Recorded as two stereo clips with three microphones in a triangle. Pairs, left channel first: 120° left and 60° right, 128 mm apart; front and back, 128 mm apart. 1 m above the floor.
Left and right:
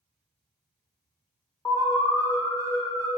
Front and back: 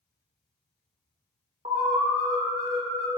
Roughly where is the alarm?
Behind.